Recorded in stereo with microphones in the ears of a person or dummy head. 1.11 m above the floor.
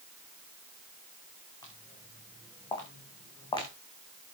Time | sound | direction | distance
1.6 | footsteps | 15° left (ahead or behind) | 5 m